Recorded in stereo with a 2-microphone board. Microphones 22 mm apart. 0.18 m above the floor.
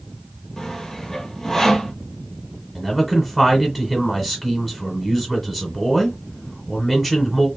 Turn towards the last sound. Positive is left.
turn(degrees=15)  # may be behind; listen again after turning